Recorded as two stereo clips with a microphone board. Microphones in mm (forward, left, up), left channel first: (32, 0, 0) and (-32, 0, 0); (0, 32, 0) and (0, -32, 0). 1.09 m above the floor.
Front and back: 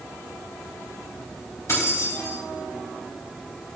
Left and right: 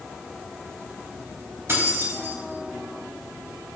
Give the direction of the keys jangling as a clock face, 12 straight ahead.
1 o'clock.